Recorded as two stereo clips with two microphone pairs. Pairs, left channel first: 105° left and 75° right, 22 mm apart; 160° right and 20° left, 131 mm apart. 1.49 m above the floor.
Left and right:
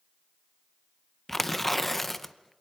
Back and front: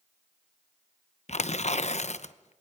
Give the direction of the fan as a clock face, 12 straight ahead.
I don't hear a fan.